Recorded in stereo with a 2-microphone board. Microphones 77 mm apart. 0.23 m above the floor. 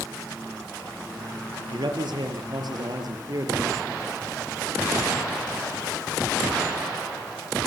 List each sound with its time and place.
1.7 s a man speaking: 75° right (ahead or behind), 4.5 m; by 4.1 s 40° right (ahead or behind), 5 m